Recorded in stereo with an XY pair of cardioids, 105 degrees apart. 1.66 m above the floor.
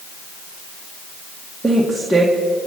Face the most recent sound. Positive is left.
turn(degrees=-15)